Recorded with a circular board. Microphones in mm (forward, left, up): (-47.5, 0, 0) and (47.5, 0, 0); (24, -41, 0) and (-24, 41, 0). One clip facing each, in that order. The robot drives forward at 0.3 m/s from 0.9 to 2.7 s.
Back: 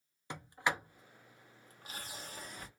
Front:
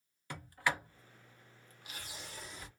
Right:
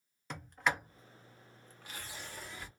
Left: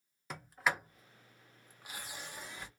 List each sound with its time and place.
0.3 s a sliding door: 155° right, 0.7 m; by 2.7 s 170° right, 1.0 m